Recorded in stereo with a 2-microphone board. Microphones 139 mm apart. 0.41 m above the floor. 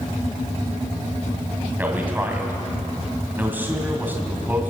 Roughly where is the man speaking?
Centre.